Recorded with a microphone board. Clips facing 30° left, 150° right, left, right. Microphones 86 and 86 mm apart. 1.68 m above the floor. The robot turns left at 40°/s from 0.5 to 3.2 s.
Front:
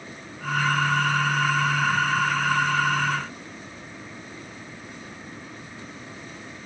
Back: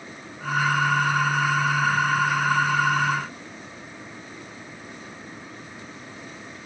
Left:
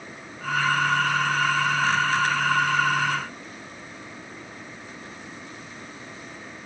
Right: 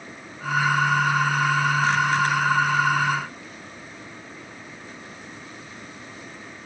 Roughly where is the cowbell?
No cowbell in this recording.